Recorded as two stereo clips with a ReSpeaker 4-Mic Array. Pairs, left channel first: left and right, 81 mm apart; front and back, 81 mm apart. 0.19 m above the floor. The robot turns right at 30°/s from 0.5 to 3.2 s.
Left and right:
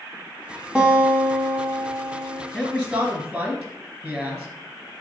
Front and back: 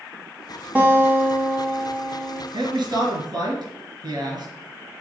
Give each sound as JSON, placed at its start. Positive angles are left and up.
{"t": 0.8, "sound": "a guitar", "azimuth_deg": -145, "distance_m": 1.4}
{"t": 2.5, "sound": "a man speaking", "azimuth_deg": -170, "distance_m": 3.0}